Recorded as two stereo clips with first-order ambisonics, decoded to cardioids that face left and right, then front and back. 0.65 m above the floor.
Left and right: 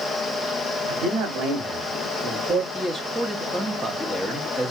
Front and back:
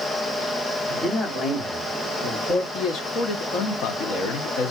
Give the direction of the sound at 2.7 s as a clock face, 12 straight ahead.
12 o'clock.